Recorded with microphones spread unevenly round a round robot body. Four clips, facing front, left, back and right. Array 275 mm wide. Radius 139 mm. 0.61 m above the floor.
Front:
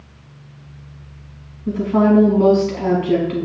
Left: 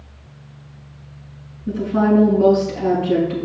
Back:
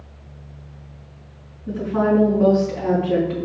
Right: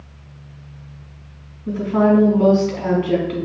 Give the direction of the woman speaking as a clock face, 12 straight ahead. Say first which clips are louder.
Right 1 dB, front 4 dB; 1 o'clock.